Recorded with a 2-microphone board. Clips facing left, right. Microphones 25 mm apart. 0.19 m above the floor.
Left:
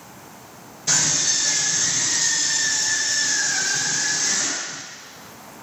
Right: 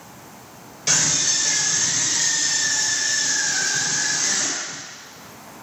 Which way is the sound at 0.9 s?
70° right (ahead or behind).